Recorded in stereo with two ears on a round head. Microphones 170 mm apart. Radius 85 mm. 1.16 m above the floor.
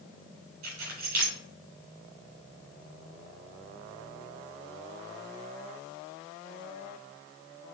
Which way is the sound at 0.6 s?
85° right.